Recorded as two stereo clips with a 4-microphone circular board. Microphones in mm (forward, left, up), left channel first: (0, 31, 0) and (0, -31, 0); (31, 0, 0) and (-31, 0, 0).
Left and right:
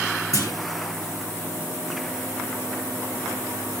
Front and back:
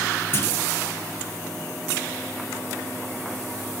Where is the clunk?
55° left, 4 m.